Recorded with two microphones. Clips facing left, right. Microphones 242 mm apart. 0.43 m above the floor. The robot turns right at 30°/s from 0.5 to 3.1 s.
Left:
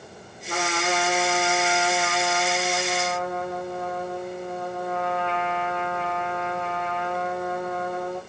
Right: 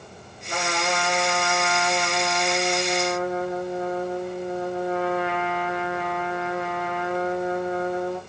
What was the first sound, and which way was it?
A trumpet, 120° left.